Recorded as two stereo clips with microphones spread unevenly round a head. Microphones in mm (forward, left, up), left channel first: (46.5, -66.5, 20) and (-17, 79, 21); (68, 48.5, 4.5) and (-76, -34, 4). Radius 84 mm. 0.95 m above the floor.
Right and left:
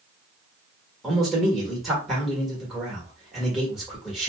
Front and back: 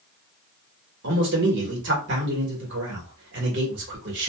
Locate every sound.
1.0 s a man speaking: 155° right, 1.4 m